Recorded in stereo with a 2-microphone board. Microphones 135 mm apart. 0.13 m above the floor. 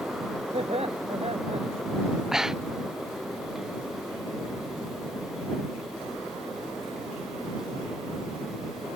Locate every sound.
0.5 s laughter: 50° right (ahead or behind)
2.3 s breathing: 5° right (ahead or behind)